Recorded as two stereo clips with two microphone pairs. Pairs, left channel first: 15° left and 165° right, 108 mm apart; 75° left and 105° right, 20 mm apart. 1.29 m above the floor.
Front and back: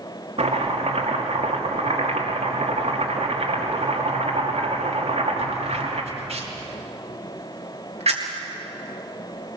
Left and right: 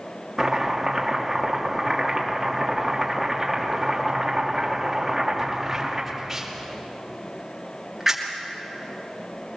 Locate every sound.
0.4 s chopping: straight behind, 2.5 m